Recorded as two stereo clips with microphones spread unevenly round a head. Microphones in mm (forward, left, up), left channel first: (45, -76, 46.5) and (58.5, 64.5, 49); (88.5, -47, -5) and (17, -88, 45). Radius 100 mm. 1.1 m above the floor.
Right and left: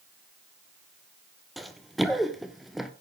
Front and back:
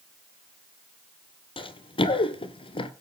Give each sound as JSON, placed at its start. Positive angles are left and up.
{"t": 1.6, "sound": "running footsteps", "azimuth_deg": -5, "distance_m": 1.9}